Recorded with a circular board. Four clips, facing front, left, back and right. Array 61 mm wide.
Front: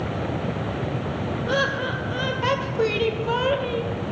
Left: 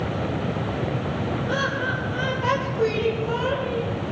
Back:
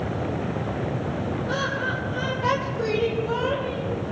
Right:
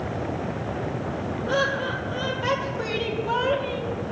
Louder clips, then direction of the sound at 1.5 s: Right 3 dB, front 4 dB; straight ahead.